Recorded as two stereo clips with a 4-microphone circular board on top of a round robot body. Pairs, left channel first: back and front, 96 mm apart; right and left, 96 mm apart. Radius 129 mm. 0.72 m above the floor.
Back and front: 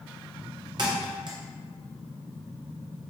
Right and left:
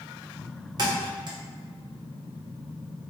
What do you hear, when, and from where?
0.8 s a thud: 45° left, 0.6 m